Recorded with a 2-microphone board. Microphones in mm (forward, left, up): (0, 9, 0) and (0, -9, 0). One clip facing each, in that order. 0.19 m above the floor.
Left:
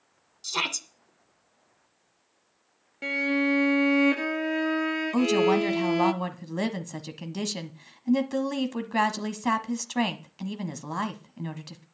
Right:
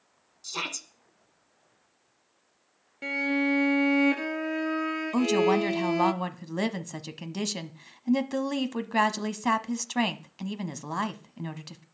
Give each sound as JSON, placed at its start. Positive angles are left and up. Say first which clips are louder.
{"t": 0.4, "sound": "a shout", "louder": "left 5 dB", "side_deg": 25, "distance_m": 1.6}
{"t": 3.0, "sound": "a violin", "louder": "left 1 dB", "side_deg": 10, "distance_m": 0.6}
{"t": 5.1, "sound": "a woman speaking", "louder": "left 1 dB", "side_deg": -5, "distance_m": 1.0}